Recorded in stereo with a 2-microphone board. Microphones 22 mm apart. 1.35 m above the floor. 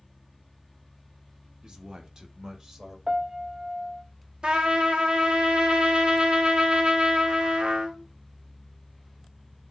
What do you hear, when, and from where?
1.6 s a man speaking: 40° right (ahead or behind), 1.2 m; by 3.0 s 30° right (ahead or behind), 1.9 m
3.1 s a piano: 35° right (ahead or behind), 0.5 m
4.4 s a trumpet: 55° right (ahead or behind), 1.0 m